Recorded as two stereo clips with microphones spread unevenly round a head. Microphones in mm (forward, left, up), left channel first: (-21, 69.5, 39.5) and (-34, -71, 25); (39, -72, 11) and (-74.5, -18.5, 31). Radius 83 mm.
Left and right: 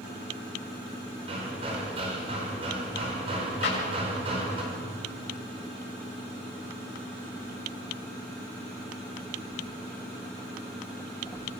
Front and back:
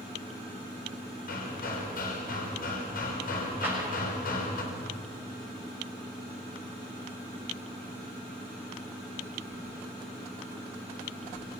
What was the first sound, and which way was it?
Hammering, 35° right.